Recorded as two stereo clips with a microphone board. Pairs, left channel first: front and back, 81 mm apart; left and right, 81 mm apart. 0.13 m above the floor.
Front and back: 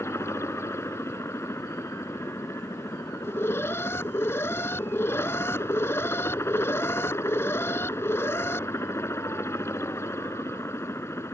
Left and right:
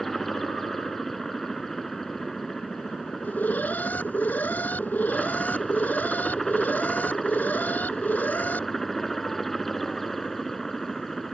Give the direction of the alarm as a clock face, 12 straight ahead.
11 o'clock.